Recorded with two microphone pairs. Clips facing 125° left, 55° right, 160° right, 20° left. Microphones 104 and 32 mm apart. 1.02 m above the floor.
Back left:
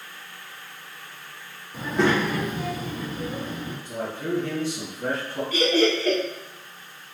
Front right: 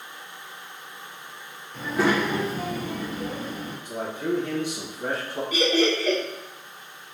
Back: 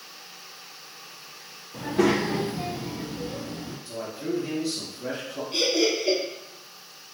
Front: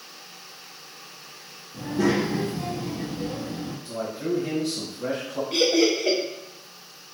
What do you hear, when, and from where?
1.7 s a child speaking: 150° right, 0.7 m; by 3.8 s 50° right, 0.9 m
3.9 s a man speaking: 20° left, 1.3 m
5.5 s laughter: 20° left, 1.2 m